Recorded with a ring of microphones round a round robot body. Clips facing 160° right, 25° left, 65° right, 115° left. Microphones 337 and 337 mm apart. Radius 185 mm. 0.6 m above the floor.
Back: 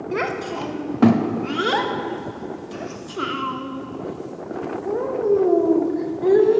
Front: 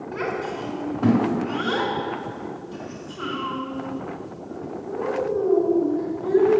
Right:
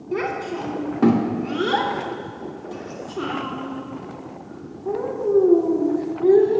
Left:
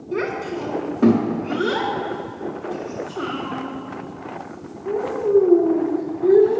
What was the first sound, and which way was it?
A child speaking, 145° right.